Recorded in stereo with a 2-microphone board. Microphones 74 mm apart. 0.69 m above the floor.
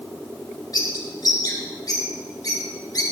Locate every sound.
0.7 s a bird: 60° left (ahead or behind), 3 m